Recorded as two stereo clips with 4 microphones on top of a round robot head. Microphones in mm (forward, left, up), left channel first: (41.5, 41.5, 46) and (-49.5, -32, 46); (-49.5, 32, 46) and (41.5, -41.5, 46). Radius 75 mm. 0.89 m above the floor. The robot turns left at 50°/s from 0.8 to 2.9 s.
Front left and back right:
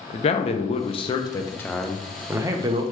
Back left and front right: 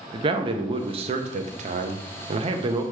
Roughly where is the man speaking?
Ahead.